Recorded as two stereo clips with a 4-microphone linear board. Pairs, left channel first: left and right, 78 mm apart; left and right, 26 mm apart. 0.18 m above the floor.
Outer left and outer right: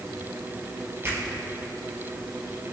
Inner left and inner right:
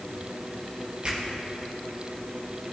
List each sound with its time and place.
1.0 s a finger snap: 30° right (ahead or behind), 4 m